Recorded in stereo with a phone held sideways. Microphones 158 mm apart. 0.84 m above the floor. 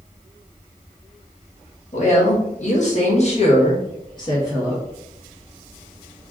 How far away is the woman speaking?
About 1.2 m.